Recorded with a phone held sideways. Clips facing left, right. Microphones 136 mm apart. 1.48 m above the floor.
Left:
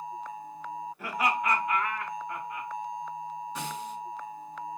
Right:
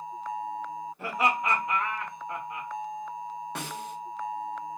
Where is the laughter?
25° right (ahead or behind), 1.7 m.